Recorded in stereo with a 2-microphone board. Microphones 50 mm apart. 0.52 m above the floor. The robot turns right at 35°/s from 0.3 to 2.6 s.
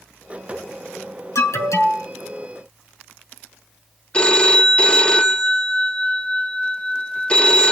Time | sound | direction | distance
1.4 | an alarm | 70° left (ahead or behind) | 5.5 m
4.1 | a phone ringing | 20° left (ahead or behind) | 0.7 m